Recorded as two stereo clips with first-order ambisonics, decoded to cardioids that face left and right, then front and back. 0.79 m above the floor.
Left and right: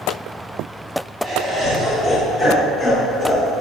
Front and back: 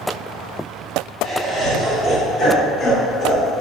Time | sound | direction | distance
1.2 | laughter | 110° right | 0.9 m